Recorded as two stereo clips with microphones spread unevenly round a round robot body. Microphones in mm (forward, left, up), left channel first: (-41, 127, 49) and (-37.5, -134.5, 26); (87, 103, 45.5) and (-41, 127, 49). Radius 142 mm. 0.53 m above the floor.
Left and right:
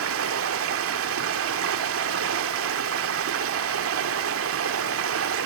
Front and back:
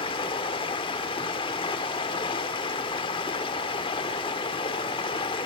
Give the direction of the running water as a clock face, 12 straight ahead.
2 o'clock.